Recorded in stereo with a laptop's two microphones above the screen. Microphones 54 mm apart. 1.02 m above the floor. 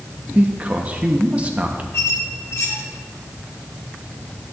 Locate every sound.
0.3 s a man speaking: 25° right (ahead or behind), 0.8 m
1.9 s a squeak: 60° left (ahead or behind), 1.9 m